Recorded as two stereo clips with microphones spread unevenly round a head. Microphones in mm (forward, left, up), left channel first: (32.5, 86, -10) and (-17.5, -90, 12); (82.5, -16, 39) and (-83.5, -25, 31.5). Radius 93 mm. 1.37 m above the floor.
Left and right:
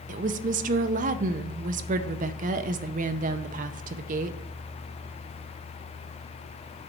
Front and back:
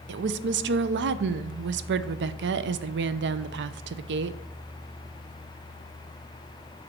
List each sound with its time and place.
0.1 s a woman speaking: 155° right, 0.5 m